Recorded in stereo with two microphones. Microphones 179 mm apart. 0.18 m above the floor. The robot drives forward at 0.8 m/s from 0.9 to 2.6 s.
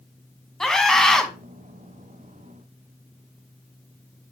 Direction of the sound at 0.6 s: Centre (ahead or behind).